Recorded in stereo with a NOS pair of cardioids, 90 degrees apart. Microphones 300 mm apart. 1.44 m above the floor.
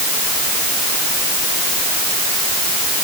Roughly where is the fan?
I don't hear a fan.